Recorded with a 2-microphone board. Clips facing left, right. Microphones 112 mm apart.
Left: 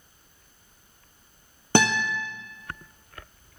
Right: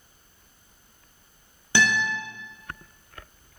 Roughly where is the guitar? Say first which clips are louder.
Left 2 dB; left.